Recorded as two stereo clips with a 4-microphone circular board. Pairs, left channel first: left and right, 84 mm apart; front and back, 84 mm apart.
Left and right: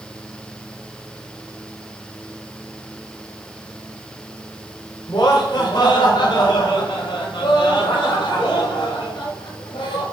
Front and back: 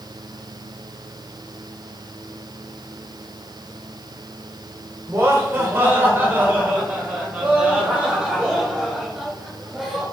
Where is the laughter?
125° left, 4 m; by 10.0 s 95° left, 6 m.